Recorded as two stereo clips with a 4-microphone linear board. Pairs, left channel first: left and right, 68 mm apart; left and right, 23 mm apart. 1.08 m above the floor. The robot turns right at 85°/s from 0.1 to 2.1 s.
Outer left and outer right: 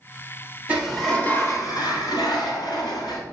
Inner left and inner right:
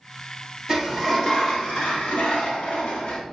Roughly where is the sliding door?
Ahead right.